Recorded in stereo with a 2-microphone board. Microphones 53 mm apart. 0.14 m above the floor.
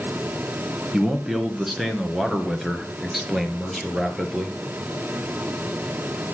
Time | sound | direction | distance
0.9 | a man speaking | 5° right (ahead or behind) | 1.4 m